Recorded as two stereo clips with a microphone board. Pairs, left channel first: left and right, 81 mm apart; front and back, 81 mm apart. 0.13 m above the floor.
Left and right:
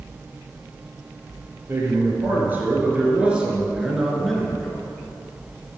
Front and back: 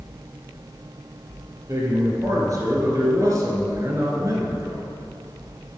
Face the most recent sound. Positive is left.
turn(degrees=160)